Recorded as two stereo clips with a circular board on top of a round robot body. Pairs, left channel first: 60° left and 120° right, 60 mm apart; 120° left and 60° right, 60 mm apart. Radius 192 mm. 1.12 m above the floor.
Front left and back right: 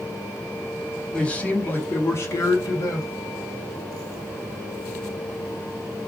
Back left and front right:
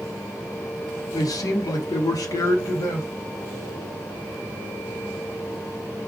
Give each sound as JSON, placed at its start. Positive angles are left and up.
{"t": 1.1, "sound": "a man speaking", "azimuth_deg": 135, "distance_m": 1.0}